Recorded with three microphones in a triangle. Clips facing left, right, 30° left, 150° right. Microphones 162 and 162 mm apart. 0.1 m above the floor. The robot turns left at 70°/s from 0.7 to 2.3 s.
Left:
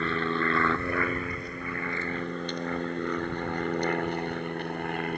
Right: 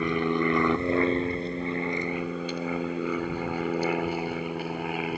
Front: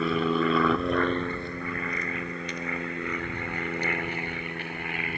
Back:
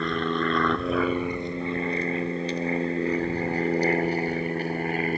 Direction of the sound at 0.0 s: 45° right.